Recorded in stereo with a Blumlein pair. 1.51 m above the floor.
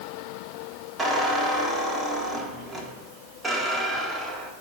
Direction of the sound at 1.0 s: 15° right.